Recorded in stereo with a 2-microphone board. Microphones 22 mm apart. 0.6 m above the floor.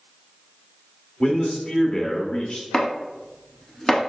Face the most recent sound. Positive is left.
turn(degrees=35)  # may be behind; listen again after turning